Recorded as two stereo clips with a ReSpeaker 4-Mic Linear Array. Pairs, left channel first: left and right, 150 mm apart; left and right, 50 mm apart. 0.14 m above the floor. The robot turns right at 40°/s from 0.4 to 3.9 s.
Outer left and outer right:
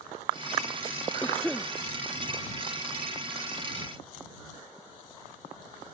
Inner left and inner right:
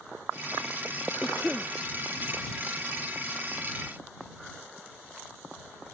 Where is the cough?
10° left (ahead or behind); by 1.7 s 10° right (ahead or behind).